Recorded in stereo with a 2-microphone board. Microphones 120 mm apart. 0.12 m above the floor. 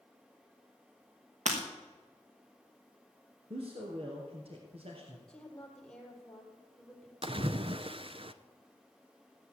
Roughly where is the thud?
No thud in this recording.